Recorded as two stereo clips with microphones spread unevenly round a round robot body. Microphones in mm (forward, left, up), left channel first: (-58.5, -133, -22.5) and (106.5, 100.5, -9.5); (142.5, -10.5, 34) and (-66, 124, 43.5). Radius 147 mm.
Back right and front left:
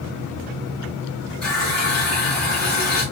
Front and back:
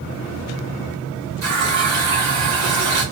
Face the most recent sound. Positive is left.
turn(degrees=150)